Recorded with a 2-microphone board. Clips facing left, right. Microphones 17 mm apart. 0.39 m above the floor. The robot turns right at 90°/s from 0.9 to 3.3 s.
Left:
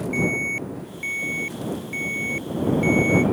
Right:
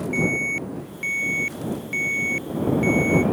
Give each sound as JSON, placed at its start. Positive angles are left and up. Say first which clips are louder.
{"t": 0.1, "sound": "an alarm", "louder": "right 1 dB", "side_deg": -5}